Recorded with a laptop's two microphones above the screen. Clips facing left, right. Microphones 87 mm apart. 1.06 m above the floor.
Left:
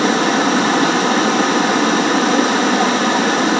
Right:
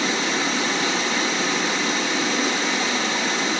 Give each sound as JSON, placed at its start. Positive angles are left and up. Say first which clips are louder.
{"t": 0.0, "sound": "running water", "louder": "left 9 dB", "side_deg": 60, "distance_m": 1.5}